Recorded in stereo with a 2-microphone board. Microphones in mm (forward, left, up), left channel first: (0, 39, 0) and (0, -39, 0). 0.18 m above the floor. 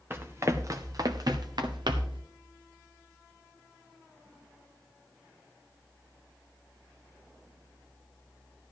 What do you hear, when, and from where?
0.1 s running footsteps: 30° right (ahead or behind), 1.3 m; by 2.2 s 80° right, 1.6 m